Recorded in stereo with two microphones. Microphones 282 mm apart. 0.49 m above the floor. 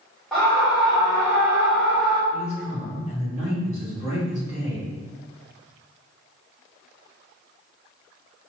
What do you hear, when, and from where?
0.3 s a scream: centre (ahead or behind), 0.9 m
2.3 s a man speaking: 25° left (ahead or behind), 1.4 m